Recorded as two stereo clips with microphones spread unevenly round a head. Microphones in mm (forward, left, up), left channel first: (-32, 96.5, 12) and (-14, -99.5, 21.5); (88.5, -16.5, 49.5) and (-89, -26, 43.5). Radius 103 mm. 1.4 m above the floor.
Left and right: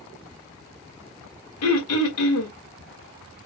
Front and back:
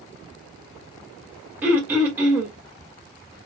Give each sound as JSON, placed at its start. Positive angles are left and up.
{"t": 1.6, "sound": "throat clearing", "azimuth_deg": 100, "distance_m": 2.0}